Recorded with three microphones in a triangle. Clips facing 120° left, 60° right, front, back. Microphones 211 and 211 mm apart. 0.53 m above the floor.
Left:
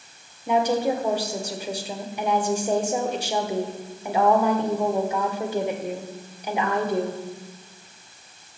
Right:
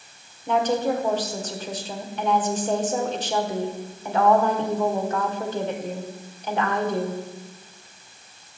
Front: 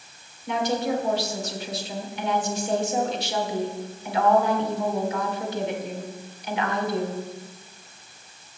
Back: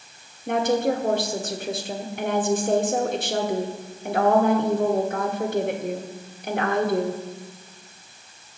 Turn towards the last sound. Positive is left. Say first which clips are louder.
# left 1 dB, back 4 dB
turn(degrees=-165)